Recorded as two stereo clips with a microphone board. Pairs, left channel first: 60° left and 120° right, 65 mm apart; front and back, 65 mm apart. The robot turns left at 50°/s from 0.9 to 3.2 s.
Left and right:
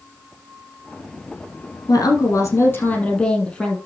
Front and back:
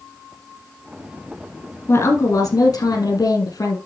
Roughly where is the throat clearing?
I don't hear throat clearing.